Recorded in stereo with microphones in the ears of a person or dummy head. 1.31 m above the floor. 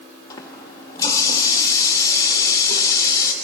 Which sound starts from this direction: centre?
A running tap, at 0.3 s.